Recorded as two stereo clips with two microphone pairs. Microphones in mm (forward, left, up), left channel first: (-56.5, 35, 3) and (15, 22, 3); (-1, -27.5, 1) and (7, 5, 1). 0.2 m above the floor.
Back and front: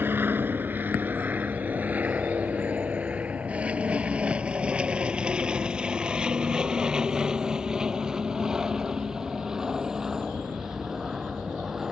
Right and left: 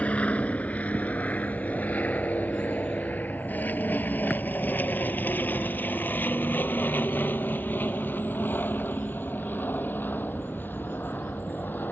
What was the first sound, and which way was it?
An aircraft, 65° right.